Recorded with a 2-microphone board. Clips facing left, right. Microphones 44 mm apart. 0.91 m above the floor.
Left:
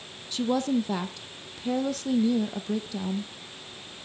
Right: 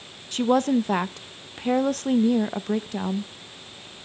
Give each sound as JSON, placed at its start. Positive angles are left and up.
{"t": 0.3, "sound": "a woman speaking", "side_deg": -45, "distance_m": 0.6}